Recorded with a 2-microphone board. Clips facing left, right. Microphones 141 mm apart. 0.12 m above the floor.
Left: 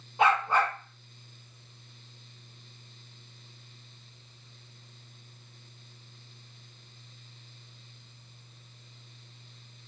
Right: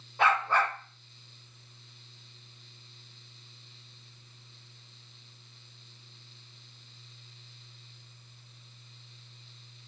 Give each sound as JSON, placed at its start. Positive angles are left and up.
{"t": 0.2, "sound": "a dog barking", "side_deg": 20, "distance_m": 1.1}